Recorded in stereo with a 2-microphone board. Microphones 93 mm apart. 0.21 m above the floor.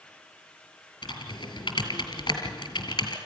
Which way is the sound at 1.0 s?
50° left (ahead or behind).